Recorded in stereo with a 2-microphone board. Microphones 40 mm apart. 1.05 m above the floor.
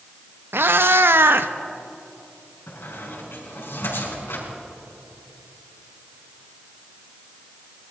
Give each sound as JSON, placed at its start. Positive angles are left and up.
{"t": 0.5, "sound": "a cat meowing", "side_deg": -70, "distance_m": 0.6}
{"t": 2.7, "sound": "a squeak", "side_deg": 70, "distance_m": 4.5}